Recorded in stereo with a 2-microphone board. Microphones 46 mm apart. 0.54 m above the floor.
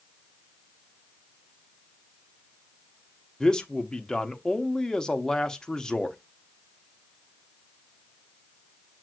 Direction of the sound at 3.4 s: 15° left (ahead or behind).